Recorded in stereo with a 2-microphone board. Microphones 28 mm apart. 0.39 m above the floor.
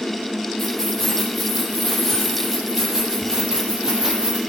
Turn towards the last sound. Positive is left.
turn(degrees=-30)  # may be behind; listen again after turning